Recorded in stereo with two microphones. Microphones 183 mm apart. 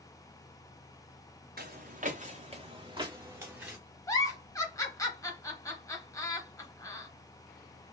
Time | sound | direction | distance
1.6 | footsteps | 55° right (ahead or behind) | 1.2 m
4.1 | a giggle | 20° left (ahead or behind) | 1.0 m